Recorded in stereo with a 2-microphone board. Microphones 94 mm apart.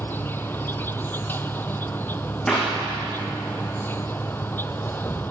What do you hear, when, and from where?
0.0 s an insect: 20° left (ahead or behind), 0.8 m
2.5 s a clap: 10° left (ahead or behind), 8 m